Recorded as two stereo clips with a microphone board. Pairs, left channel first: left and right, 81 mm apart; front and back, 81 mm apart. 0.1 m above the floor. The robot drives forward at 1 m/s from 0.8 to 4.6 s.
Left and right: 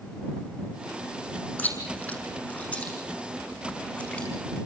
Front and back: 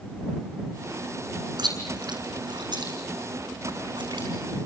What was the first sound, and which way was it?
Chewing, 160° left.